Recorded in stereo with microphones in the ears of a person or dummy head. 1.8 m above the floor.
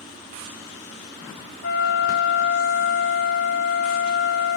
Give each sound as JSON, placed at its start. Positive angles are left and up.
{"t": 1.6, "sound": "a flute", "side_deg": 65, "distance_m": 2.0}